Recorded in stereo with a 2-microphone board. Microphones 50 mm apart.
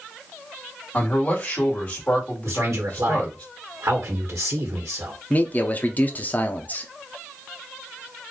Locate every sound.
0.9 s a man speaking: 25° left (ahead or behind), 2.0 m
2.5 s a man speaking: 75° right (ahead or behind), 1.6 m
5.3 s a man speaking: 35° left (ahead or behind), 0.7 m